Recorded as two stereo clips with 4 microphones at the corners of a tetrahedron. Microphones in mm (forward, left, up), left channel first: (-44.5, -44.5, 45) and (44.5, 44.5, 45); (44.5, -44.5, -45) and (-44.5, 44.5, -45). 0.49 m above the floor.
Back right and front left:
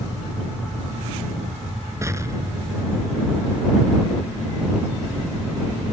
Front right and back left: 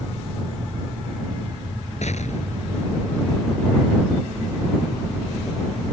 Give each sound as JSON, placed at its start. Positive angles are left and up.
{"t": 2.0, "sound": "an explosion", "azimuth_deg": -20}